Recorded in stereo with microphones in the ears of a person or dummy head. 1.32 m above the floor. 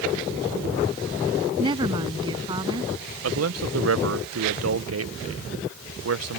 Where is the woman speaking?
25° right (ahead or behind).